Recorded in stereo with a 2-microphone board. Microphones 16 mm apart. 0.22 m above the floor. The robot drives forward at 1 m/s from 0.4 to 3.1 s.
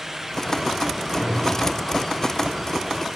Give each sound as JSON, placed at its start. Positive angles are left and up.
{"t": 1.1, "sound": "a whoosh", "side_deg": 5, "distance_m": 2.5}